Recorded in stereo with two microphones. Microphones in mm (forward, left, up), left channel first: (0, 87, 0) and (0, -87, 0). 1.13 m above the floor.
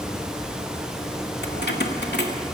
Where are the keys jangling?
75° left (ahead or behind), 2 m.